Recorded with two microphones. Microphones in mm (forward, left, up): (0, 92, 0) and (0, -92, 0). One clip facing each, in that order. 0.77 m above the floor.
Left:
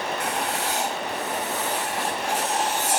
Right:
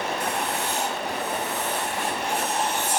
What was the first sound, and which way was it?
Writing, 80° left.